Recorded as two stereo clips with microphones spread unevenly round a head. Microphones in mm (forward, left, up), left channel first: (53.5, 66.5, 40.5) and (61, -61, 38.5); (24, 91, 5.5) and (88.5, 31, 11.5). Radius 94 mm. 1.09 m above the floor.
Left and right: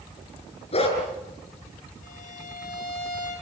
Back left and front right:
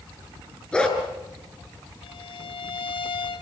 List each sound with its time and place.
0.7 s a dog barking: 55° left, 5.5 m
2.0 s a violin: 130° left, 2.5 m